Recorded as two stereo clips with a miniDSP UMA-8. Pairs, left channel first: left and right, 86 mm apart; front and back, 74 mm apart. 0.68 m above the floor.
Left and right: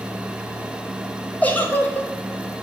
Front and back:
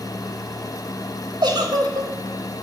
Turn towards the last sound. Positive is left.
turn(degrees=160)